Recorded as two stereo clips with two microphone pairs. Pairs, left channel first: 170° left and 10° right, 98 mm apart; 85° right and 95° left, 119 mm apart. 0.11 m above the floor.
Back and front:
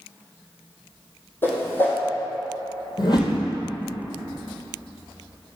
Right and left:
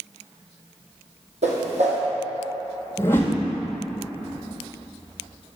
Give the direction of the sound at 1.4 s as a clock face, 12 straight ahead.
8 o'clock.